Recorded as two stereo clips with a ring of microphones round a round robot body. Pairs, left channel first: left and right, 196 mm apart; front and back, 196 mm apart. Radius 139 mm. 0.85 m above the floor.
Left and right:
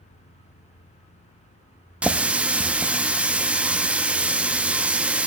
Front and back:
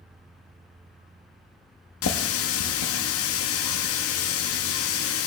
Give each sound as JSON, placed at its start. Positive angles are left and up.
{"t": 2.0, "sound": "a running tap", "azimuth_deg": -5, "distance_m": 0.6}